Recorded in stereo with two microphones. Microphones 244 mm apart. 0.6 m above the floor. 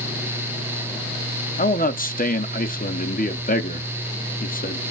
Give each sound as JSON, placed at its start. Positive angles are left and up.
{"t": 1.6, "sound": "a man speaking", "side_deg": 35, "distance_m": 0.6}